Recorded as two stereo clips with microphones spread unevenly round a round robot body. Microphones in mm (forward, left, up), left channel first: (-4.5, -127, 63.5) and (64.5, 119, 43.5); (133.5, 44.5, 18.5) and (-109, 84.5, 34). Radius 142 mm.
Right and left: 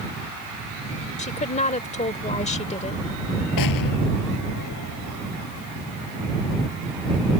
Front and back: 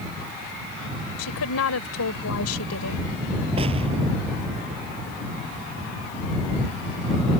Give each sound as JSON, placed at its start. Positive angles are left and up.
{"t": 1.2, "sound": "a woman speaking", "azimuth_deg": -40}
{"t": 3.6, "sound": "an explosion", "azimuth_deg": -120}